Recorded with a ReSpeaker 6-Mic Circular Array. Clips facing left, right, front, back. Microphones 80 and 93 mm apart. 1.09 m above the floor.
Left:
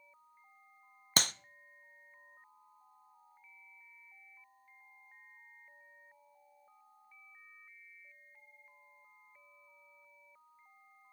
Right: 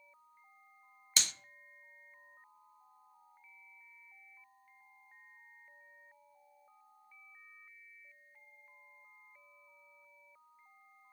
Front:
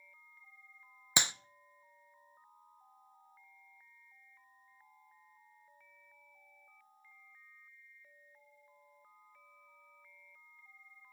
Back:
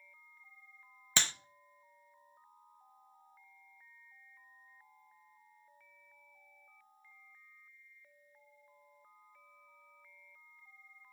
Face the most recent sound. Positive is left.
turn(degrees=70)